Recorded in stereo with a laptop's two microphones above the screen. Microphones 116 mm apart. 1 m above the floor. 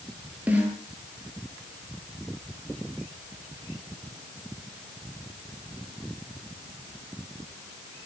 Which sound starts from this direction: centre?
A snare drum, at 0.5 s.